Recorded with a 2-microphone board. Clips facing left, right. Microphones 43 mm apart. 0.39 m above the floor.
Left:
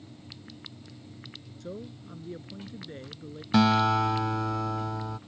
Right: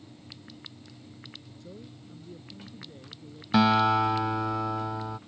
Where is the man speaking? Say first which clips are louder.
Left 8 dB; 65° left (ahead or behind).